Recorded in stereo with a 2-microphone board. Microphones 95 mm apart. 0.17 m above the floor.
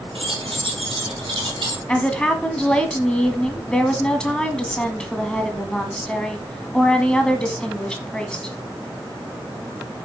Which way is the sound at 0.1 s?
70° right (ahead or behind).